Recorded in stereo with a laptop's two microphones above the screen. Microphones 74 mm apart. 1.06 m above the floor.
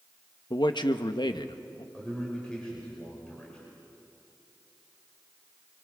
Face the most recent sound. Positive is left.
turn(degrees=15)  # may be behind; listen again after turning